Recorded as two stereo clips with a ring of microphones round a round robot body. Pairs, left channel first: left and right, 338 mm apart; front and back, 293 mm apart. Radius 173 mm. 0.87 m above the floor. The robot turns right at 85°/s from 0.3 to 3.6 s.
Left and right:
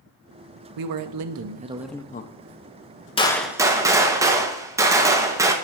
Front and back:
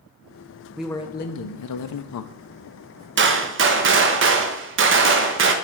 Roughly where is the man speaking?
Right.